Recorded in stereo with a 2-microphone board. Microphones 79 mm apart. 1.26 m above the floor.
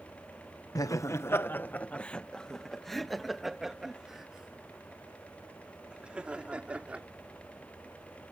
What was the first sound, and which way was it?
Laughter, 50° left (ahead or behind).